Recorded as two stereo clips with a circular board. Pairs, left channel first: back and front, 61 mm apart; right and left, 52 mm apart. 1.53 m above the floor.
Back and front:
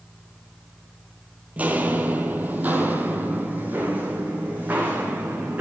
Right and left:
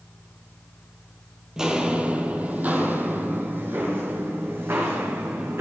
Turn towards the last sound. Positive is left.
turn(degrees=60)